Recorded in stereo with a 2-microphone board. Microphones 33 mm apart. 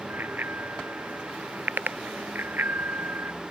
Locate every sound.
0.1 s a bicycle bell: 85° right; by 3.3 s 90° right